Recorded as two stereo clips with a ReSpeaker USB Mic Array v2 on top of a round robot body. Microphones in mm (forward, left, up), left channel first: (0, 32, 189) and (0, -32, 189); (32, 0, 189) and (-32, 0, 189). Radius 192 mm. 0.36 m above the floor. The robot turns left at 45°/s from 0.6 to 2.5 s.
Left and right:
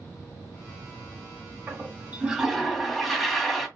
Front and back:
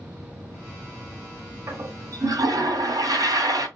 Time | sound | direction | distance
1.7 | a toilet flushing | 140° right | 2 m